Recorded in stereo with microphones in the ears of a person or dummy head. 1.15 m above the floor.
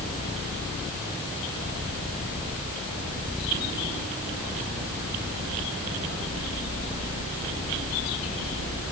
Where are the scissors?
I don't hear scissors.